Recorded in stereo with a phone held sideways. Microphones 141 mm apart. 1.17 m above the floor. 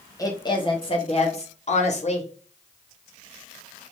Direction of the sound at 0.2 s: 25° left (ahead or behind).